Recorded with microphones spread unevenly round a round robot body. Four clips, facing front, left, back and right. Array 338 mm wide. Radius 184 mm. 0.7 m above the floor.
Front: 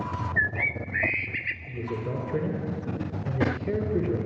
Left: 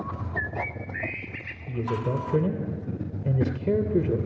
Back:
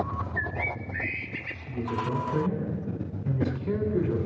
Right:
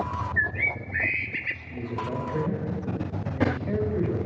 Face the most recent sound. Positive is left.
turn(degrees=95)